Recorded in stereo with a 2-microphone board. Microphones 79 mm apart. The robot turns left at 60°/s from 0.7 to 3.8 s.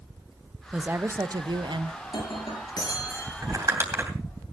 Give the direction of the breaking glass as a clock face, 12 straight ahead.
8 o'clock.